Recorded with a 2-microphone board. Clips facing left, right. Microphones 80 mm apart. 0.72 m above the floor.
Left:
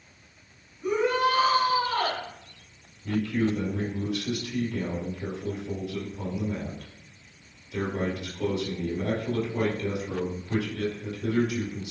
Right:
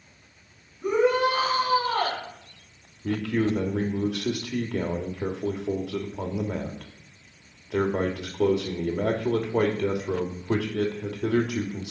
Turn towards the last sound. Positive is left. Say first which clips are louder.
# right 1 dB
turn(degrees=-70)  # may be behind; listen again after turning